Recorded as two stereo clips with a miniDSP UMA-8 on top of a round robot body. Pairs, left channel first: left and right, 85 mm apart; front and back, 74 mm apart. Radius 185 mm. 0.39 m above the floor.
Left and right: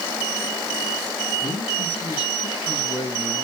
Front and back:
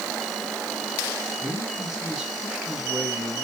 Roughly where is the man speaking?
Left.